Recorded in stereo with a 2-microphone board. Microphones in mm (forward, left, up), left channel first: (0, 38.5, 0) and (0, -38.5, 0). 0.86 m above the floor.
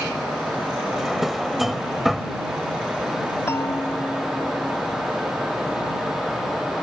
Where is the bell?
35° left (ahead or behind).